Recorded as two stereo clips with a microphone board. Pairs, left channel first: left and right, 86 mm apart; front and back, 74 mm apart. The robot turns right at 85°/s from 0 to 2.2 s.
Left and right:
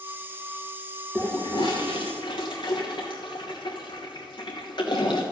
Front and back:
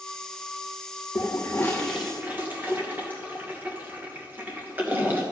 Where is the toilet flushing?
25° left, 2.5 m; by 5.2 s 115° left, 2.5 m.